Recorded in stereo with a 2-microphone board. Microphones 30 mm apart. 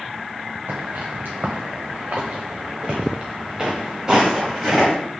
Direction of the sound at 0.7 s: 80° right.